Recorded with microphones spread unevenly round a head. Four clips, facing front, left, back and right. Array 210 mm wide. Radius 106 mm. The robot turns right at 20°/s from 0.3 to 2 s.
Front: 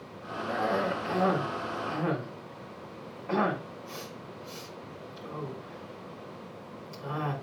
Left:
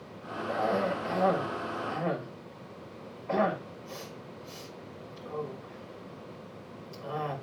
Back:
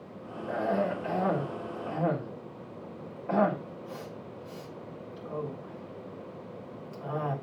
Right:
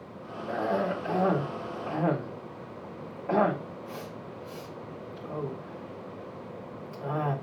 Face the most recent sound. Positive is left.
turn(degrees=-85)